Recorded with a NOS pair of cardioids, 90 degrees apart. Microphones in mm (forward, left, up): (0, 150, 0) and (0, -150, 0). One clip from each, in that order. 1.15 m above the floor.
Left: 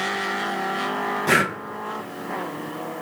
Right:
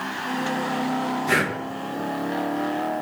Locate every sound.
1.3 s breathing: 30° left, 0.8 m